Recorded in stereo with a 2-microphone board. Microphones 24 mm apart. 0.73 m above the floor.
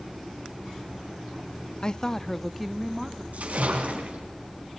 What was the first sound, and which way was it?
A woman speaking, 30° left (ahead or behind).